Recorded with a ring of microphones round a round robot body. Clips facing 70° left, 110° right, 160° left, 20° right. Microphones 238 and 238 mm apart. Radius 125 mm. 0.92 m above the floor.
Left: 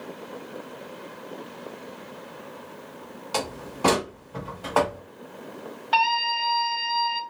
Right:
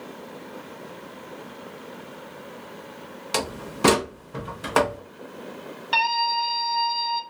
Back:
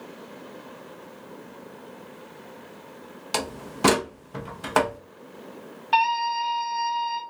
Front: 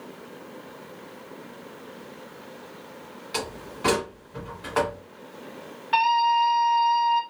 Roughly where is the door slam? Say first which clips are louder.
Right 2 dB, back 2 dB; behind.